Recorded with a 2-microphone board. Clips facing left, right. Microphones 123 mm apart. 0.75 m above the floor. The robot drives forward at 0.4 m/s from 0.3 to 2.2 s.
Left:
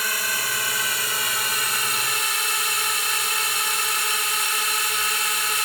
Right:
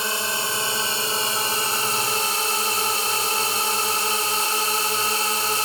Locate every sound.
0.0 s a drone: 25° right (ahead or behind); by 5.7 s 30° right (ahead or behind)